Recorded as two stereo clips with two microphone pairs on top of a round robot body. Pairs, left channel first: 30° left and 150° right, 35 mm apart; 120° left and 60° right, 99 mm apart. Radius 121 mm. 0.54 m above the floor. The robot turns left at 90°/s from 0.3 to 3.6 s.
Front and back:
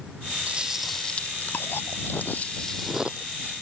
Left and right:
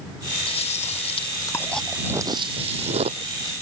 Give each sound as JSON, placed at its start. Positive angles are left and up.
{"t": 0.5, "sound": "chewing", "azimuth_deg": 155}